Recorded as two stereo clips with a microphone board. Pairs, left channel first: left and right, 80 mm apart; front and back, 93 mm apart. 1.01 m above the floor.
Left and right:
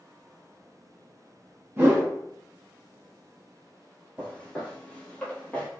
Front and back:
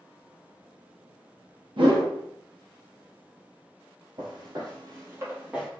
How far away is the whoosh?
About 0.8 m.